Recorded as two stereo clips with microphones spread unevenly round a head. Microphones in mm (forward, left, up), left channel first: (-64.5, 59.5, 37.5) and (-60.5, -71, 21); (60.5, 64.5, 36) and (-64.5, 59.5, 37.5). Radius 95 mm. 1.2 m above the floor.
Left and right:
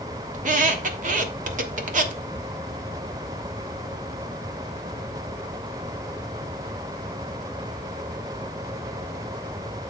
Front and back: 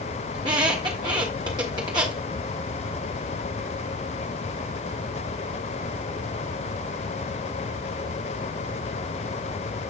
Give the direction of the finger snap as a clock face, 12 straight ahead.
No finger snap in this recording.